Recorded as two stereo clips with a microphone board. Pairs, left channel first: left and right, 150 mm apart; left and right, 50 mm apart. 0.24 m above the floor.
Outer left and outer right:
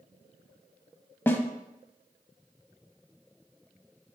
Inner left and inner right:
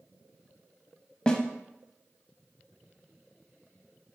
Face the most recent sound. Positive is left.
turn(degrees=15)  # may be behind; listen again after turning